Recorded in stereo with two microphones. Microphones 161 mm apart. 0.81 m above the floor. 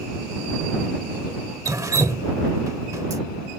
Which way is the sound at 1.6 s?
20° right (ahead or behind).